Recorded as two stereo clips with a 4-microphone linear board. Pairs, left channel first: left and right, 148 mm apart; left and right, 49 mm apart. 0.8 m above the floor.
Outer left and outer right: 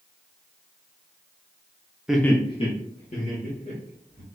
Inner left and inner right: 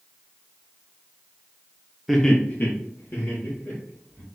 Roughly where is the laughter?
Centre.